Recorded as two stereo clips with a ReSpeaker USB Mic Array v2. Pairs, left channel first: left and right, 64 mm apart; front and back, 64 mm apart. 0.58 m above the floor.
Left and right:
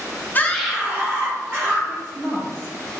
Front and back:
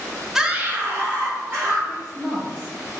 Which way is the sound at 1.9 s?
90° right.